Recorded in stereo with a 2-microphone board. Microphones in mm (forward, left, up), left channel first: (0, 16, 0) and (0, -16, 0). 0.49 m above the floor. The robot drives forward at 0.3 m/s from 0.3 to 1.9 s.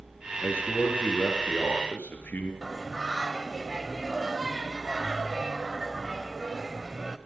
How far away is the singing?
About 1.1 m.